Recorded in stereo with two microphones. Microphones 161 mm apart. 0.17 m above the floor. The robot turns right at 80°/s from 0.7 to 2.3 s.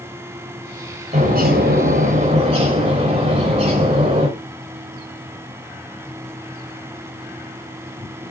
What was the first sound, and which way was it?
A bird, 135° right.